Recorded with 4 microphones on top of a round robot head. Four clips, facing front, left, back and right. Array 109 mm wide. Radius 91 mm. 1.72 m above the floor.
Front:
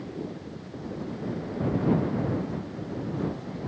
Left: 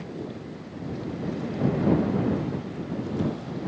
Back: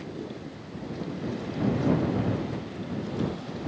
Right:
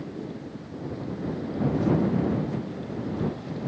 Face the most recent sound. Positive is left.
No sound to turn to.